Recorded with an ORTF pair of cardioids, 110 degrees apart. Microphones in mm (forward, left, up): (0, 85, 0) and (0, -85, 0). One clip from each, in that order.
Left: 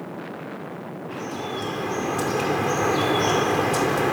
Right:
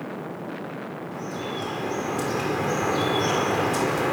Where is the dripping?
25° left, 4 m.